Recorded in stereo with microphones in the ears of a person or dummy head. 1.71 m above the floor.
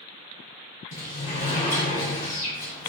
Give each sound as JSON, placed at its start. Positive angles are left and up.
{"t": 0.9, "sound": "a sliding door", "side_deg": 40, "distance_m": 0.8}